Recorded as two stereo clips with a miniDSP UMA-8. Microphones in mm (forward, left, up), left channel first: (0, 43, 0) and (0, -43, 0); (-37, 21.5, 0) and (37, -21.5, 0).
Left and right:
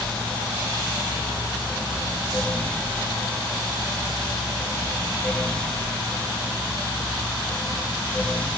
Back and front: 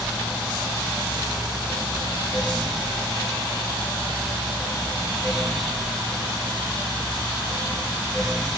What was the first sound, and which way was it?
Only background noise.